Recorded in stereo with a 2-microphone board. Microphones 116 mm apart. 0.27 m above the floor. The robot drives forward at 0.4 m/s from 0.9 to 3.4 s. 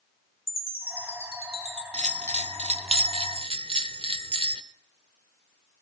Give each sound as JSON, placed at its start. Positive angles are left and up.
{"t": 0.5, "sound": "a chime", "side_deg": 55, "distance_m": 2.5}
{"t": 1.9, "sound": "a bell", "side_deg": -75, "distance_m": 0.7}